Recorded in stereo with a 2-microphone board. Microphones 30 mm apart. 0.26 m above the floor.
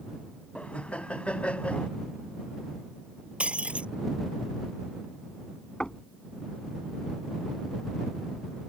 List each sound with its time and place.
0.6 s laughter: 45° left (ahead or behind)
3.4 s breaking glass: 45° right (ahead or behind)
5.8 s knocking: 30° left (ahead or behind)